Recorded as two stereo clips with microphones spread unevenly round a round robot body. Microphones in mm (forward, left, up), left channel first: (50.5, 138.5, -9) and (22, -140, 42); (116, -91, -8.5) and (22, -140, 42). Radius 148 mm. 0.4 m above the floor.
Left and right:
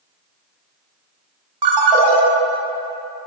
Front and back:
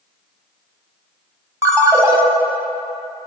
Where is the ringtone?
80° right, 1.2 m.